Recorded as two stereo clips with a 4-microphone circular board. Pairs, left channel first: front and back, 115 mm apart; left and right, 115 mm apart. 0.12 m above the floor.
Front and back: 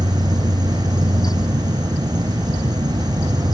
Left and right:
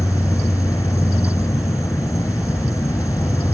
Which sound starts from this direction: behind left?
An insect, at 0.0 s.